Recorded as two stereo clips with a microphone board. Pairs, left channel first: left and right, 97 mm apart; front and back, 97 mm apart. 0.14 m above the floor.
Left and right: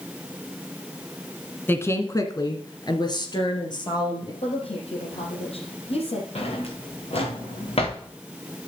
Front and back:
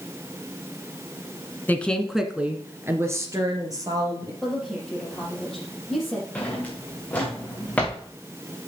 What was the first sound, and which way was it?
A woman speaking, 50° left.